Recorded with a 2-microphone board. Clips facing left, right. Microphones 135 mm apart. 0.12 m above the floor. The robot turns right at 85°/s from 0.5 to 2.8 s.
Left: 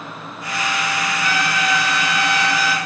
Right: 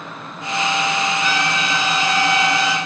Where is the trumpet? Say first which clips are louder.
Even; 165° right, 1.0 m; by 2.8 s 30° right, 1.0 m.